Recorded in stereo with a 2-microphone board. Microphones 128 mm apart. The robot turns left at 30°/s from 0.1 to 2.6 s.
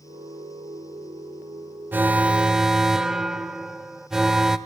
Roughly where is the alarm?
Centre.